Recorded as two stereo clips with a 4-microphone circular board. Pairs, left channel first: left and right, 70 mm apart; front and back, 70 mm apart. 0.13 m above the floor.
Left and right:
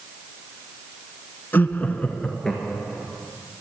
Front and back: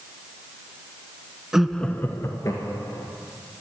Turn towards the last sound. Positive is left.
turn(degrees=-5)